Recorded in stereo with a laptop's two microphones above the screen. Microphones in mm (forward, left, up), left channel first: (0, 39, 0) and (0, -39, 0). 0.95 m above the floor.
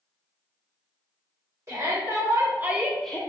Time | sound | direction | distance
1.7 | a shout | 35° right (ahead or behind) | 1.5 m